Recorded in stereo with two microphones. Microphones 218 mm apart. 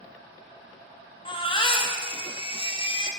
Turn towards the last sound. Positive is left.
turn(degrees=25)  # may be behind; listen again after turning